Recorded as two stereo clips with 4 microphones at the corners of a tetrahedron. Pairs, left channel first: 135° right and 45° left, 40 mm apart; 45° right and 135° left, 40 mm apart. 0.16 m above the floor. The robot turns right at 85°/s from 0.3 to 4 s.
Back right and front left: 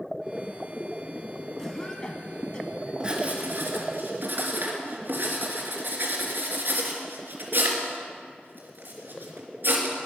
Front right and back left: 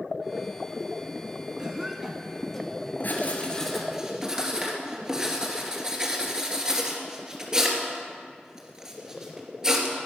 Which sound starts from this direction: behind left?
A cough, at 1.6 s.